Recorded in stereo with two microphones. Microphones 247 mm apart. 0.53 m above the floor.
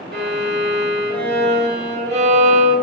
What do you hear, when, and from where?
0.1 s a violin: 45° right (ahead or behind), 1.4 m